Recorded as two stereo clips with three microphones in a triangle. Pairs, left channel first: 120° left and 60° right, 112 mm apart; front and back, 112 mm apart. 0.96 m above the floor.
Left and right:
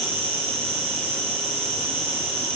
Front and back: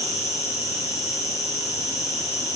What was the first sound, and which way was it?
An insect, 55° right.